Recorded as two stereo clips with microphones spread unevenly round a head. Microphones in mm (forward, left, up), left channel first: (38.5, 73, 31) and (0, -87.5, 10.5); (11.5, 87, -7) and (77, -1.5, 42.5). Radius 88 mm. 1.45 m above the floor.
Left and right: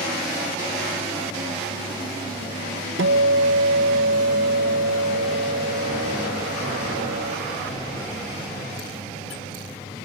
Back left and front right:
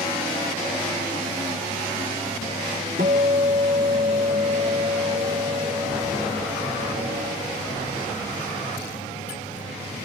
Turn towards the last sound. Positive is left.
turn(degrees=-95)